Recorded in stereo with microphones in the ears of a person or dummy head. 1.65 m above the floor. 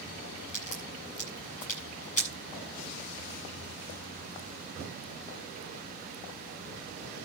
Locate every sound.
0.5 s a crack: 45° left (ahead or behind), 8 m